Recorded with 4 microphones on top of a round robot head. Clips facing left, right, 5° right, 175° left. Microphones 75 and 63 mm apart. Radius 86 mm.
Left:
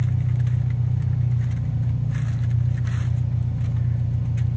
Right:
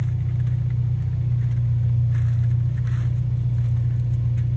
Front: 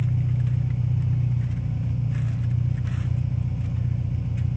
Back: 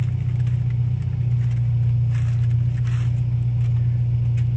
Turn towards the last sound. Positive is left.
turn(degrees=70)